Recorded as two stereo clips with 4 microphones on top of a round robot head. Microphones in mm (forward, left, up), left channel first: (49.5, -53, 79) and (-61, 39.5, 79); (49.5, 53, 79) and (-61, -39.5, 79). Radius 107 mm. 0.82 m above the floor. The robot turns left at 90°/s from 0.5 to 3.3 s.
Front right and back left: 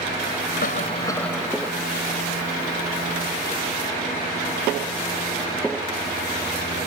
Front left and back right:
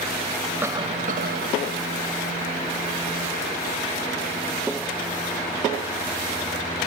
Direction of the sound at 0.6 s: 65° right.